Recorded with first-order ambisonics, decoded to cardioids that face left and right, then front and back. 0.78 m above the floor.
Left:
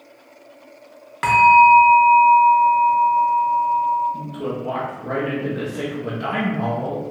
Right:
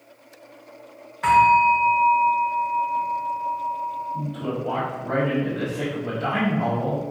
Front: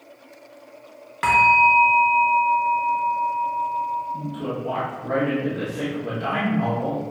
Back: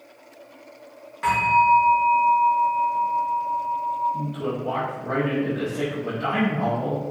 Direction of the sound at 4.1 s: 100° left.